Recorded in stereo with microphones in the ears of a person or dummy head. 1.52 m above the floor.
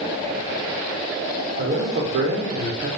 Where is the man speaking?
45° right (ahead or behind), 0.8 m.